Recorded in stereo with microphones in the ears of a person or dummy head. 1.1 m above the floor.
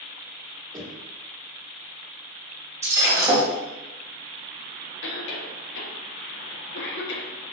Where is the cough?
65° left (ahead or behind), 1.7 m.